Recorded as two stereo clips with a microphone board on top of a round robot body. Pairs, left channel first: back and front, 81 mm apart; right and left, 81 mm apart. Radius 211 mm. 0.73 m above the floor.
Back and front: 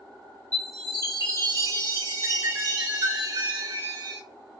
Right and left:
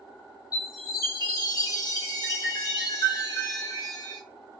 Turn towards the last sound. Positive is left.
turn(degrees=-50)